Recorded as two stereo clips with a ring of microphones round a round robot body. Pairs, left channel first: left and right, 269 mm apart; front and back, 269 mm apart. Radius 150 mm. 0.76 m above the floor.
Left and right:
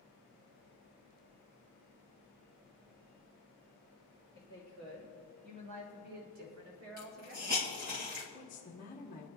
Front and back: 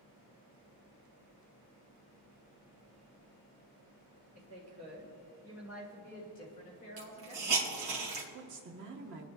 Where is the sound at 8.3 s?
145° left, 1.3 m.